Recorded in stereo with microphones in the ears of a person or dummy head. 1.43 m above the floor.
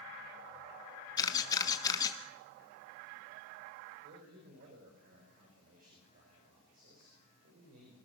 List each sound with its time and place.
1.2 s a camera shutter: 20° left (ahead or behind), 1.3 m
4.0 s a man speaking: 50° right (ahead or behind), 5.5 m